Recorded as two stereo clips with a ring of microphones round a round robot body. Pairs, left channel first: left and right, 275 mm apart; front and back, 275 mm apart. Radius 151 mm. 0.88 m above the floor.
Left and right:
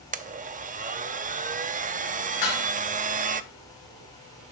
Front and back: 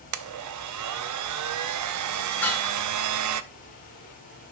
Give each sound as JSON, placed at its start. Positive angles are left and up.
{"t": 0.1, "sound": "a blender", "azimuth_deg": -155, "distance_m": 0.7}
{"t": 2.4, "sound": "dishes clattering", "azimuth_deg": 85, "distance_m": 4.5}